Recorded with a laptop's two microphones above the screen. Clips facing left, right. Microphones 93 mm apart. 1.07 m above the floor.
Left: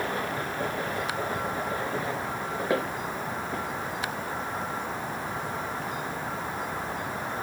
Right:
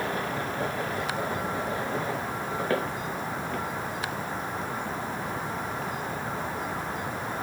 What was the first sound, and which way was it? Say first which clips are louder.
Footsteps: left 2 dB; 10° left (ahead or behind).